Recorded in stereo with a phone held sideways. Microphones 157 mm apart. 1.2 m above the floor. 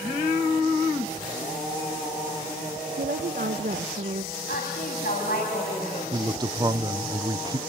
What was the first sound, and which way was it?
A woman speaking, 65° right (ahead or behind).